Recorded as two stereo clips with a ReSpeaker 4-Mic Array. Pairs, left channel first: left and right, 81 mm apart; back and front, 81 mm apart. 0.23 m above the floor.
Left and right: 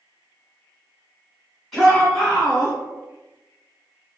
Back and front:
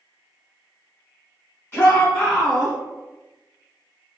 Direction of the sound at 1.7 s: 170° left.